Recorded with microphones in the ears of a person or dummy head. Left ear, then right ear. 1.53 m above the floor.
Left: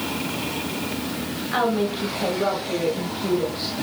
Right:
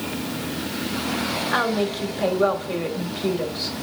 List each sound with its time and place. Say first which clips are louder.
1.5 s a woman speaking: left 2 dB; 25° right (ahead or behind), 1.1 m